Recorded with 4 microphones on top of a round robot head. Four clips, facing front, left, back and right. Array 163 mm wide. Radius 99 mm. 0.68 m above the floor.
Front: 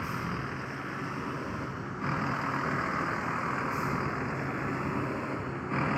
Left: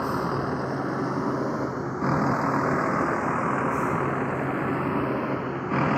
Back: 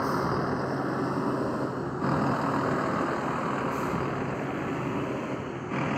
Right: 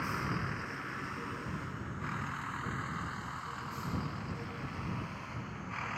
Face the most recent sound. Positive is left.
turn(degrees=100)